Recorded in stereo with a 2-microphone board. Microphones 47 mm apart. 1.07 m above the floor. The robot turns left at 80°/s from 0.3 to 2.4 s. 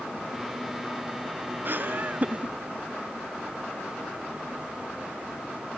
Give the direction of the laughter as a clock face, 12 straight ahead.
3 o'clock.